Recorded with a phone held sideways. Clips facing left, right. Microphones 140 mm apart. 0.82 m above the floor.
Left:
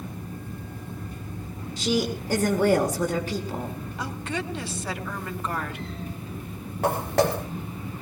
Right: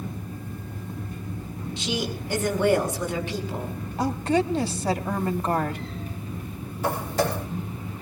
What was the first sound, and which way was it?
A woman speaking, 40° left (ahead or behind).